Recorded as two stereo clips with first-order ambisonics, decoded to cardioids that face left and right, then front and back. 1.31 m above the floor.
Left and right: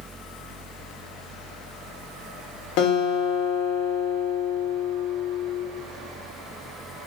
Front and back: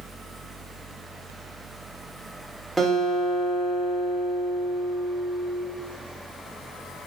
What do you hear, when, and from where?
2.8 s a guitar: 95° left, 0.9 m